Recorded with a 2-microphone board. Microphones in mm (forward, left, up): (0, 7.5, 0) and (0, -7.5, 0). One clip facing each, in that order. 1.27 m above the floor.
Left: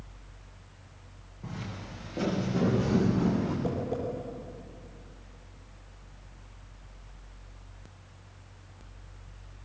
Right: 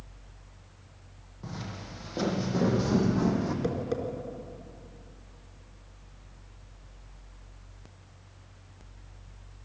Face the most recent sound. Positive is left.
turn(degrees=-75)  # may be behind; listen again after turning